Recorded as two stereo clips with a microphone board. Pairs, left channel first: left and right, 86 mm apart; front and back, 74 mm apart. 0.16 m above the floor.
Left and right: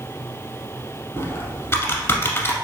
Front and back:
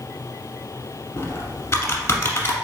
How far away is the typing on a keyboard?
About 0.9 m.